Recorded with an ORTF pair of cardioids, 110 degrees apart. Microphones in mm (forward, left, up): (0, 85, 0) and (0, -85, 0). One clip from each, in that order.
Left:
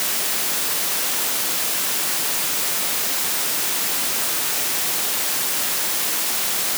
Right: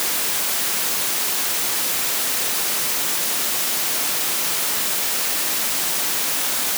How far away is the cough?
No cough in this recording.